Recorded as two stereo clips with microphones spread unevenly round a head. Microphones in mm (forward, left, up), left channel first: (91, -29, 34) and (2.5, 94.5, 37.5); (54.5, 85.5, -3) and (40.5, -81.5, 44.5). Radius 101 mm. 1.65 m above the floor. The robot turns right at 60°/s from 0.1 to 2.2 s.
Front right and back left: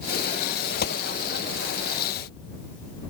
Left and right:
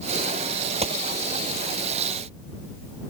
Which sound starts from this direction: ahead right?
A gunshot, at 0.8 s.